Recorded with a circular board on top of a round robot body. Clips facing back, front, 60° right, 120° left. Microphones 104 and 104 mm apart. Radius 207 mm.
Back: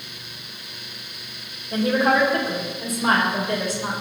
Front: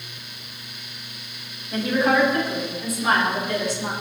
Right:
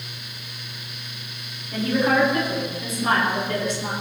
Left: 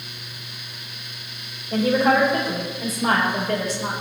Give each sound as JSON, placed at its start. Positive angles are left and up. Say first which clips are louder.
{"t": 1.7, "sound": "a woman speaking", "louder": "back 1 dB, left 3 dB", "azimuth_deg": 130, "distance_m": 5.0}